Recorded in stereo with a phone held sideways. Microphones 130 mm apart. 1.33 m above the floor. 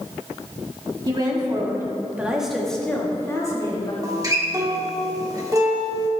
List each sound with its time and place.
1.1 s a woman speaking: 35° right (ahead or behind), 2.5 m; by 3.9 s 35° left (ahead or behind), 2.5 m
4.0 s a guitar: 25° right (ahead or behind), 2.0 m